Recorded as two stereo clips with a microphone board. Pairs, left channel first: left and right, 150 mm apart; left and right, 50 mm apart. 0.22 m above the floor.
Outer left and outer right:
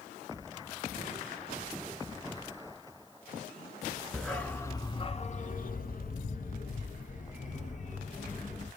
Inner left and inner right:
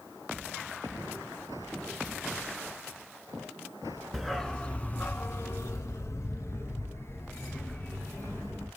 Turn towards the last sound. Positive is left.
turn(degrees=50)  # may be behind; listen again after turning